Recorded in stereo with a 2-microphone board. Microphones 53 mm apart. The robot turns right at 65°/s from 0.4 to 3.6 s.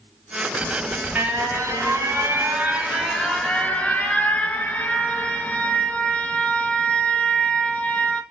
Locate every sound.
0.6 s an alarm: 170° right, 1.9 m; by 8.2 s 25° left, 1.9 m